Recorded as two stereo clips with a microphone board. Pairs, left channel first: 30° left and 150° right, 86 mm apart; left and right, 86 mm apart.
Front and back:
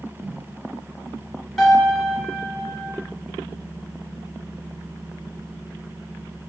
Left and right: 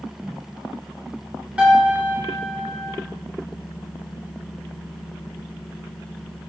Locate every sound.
1.6 s a piano: 55° right, 0.9 m